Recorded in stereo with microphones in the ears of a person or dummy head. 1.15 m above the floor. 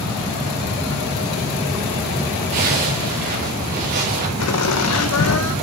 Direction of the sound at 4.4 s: 75° left (ahead or behind).